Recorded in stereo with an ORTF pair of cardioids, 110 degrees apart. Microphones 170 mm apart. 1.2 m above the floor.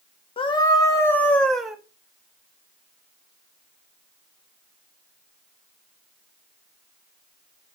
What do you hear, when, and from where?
0.4 s a scream: 30° left, 1.9 m; by 1.8 s straight ahead, 2 m